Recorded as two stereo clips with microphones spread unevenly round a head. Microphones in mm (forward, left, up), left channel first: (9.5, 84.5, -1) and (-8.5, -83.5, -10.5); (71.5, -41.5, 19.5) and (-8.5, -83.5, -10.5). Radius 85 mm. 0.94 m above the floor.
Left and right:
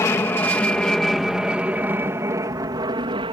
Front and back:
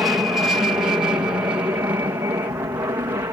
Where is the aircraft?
150° left; by 3.3 s 135° right.